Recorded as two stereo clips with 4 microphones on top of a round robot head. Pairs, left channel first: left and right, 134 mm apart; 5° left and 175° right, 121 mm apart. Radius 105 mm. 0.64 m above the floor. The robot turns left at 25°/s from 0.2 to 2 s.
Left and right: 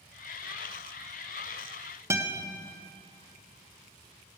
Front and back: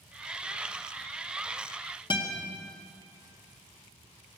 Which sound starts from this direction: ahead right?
A guitar, at 2.1 s.